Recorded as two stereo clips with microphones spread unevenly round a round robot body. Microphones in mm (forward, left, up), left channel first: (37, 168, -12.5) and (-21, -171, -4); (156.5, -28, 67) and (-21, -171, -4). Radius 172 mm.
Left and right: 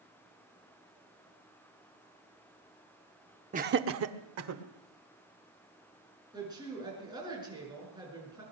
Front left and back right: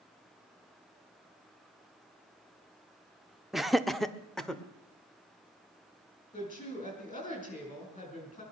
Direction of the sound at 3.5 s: 125° right.